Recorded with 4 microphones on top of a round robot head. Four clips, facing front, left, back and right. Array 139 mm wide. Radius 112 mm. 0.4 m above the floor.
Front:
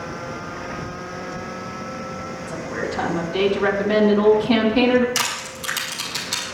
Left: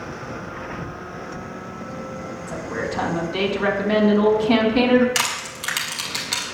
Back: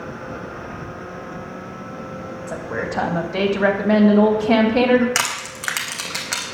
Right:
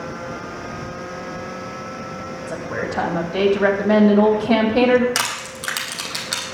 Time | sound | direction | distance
2.5 | a woman speaking | 140° right | 3.5 m
5.2 | crushing | 145° right | 3.5 m